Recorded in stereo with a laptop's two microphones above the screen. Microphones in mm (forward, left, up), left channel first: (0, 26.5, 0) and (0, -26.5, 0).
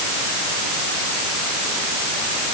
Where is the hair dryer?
I don't hear a hair dryer.